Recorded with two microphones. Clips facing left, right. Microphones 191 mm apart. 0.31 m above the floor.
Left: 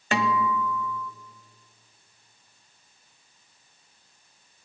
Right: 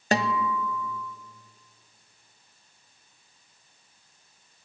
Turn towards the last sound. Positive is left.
turn(degrees=-40)  # may be behind; listen again after turning